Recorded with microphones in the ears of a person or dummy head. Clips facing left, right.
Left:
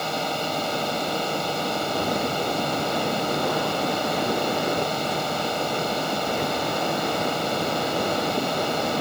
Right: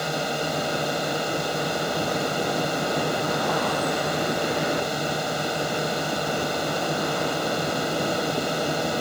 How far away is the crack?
No crack in this recording.